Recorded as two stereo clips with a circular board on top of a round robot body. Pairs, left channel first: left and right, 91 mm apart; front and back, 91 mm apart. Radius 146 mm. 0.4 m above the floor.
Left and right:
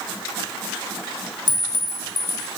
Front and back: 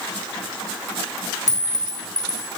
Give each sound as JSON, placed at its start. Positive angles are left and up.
{"t": 1.5, "sound": "a clink", "azimuth_deg": 50, "distance_m": 3.0}